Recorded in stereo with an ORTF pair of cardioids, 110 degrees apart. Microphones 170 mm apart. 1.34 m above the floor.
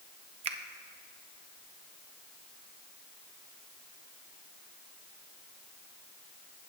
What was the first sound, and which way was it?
A finger snap, 40° right.